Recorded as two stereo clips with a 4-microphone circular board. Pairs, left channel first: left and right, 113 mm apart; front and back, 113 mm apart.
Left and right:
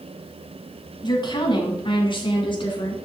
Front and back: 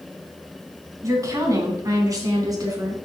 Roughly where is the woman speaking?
Behind left.